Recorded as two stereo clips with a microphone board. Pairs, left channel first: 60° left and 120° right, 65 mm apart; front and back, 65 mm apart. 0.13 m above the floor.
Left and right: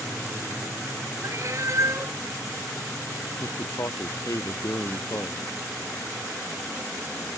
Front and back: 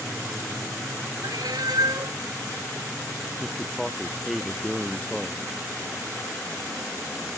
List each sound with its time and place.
1.2 s a cat meowing: 165° right
3.4 s a man speaking: 90° left